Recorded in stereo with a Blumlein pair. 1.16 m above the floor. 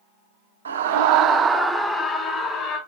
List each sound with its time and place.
0.7 s a scream: 70° right, 0.6 m; by 2.8 s 25° left, 1.2 m